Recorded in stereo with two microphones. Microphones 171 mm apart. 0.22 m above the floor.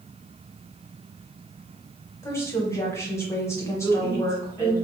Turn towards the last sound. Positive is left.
turn(degrees=15)  # may be behind; listen again after turning